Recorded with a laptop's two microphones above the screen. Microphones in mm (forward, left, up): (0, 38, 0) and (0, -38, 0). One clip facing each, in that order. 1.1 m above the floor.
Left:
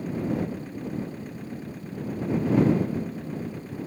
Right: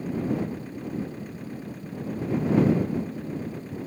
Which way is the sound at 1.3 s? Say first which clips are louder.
Even; 10° right (ahead or behind).